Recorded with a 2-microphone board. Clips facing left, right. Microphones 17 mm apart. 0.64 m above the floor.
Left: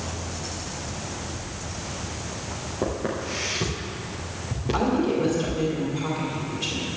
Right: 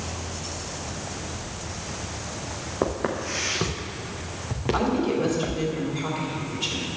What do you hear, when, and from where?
2.8 s footsteps: 50° right (ahead or behind), 2.5 m; by 5.7 s 70° right (ahead or behind), 3.5 m
4.7 s a woman speaking: 10° right (ahead or behind), 2.5 m